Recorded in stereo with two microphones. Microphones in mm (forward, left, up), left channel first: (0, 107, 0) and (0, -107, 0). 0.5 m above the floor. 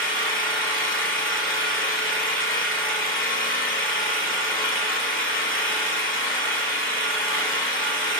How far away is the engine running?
About 1.3 m.